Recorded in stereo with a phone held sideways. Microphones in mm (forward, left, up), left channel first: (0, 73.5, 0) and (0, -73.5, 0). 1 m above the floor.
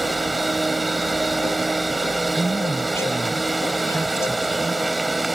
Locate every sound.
0.0 s a machine running: centre (ahead or behind)
2.4 s a man speaking: 20° left (ahead or behind)